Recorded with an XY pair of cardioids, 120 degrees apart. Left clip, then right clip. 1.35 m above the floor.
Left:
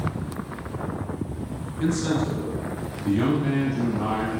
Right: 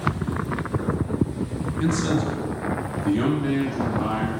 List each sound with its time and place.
1.8 s a man speaking: 15° right, 1.4 m; by 4.4 s 20° right, 4.5 m